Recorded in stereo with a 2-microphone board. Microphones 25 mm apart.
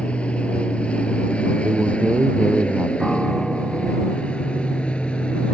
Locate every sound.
0.0 s an aircraft: 50° left (ahead or behind); by 5.5 s 45° left (ahead or behind)
1.6 s a man speaking: 65° right (ahead or behind)
3.0 s a piano: 10° right (ahead or behind)